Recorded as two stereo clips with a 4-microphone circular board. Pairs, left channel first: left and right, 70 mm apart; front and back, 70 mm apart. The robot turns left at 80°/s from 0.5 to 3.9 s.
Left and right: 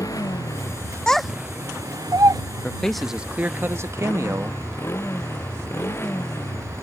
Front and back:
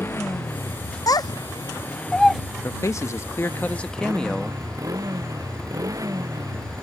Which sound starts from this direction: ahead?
A child speaking, at 1.1 s.